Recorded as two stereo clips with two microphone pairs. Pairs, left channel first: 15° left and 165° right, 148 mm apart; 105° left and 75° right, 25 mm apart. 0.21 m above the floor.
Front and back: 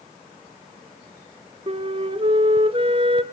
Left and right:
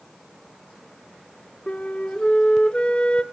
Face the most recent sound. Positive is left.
turn(degrees=150)